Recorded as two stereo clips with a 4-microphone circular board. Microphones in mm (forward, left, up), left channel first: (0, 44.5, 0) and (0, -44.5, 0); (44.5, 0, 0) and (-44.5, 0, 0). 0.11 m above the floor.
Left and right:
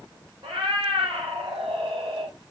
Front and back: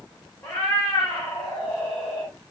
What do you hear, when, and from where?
0.4 s a cat meowing: 65° right, 8 m